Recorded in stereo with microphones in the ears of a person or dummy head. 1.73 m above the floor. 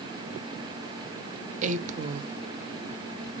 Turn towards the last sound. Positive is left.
turn(degrees=-45)  # may be behind; listen again after turning